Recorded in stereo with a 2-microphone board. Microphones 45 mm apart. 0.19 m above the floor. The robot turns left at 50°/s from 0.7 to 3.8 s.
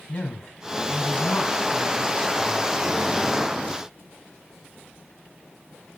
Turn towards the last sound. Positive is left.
turn(degrees=-35)